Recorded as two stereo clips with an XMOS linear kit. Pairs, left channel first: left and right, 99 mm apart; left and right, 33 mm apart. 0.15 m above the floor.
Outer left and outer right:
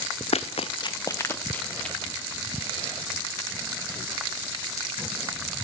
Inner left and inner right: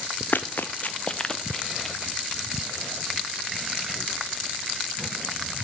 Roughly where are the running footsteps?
Left.